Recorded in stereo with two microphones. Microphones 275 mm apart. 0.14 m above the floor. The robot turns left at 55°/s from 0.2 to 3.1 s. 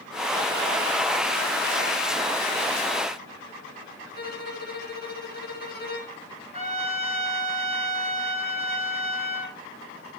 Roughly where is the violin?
Left.